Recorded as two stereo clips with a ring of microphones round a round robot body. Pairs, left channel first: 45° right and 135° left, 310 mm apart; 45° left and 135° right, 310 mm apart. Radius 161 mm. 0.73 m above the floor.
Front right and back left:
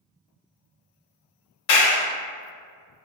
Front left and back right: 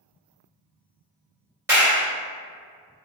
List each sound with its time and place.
1.7 s a clap: 50° right, 1.8 m